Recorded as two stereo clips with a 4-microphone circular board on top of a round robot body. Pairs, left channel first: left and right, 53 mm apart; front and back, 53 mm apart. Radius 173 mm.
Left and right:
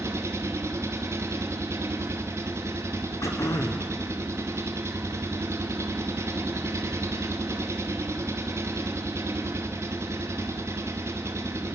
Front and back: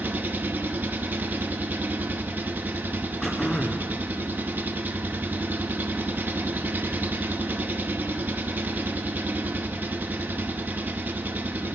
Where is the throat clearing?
80° left, 1.4 m.